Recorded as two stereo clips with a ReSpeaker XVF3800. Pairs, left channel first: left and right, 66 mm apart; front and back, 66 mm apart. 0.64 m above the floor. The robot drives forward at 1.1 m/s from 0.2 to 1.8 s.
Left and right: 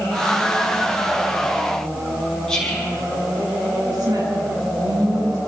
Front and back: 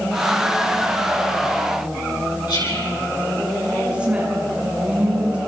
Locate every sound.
2.5 s whispering: 10° left, 7.5 m
3.9 s a woman speaking: 105° right, 6 m